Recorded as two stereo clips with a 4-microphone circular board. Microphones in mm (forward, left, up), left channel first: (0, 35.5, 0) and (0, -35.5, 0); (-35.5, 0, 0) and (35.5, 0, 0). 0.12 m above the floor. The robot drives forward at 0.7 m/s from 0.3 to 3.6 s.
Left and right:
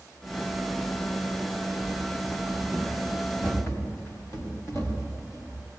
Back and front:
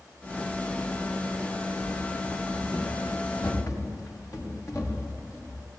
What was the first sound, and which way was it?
Running footsteps, 140° left.